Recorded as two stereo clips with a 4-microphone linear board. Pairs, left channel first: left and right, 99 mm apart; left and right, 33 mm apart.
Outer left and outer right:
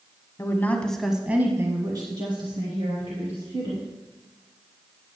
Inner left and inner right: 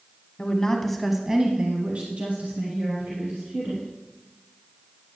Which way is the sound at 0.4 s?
30° left (ahead or behind).